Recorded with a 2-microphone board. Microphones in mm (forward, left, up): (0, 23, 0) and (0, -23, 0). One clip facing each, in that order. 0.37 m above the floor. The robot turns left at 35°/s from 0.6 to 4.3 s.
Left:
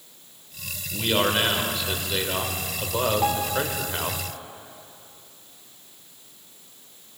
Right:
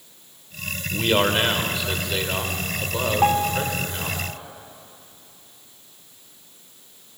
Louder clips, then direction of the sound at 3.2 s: Right 4 dB; 30° right (ahead or behind).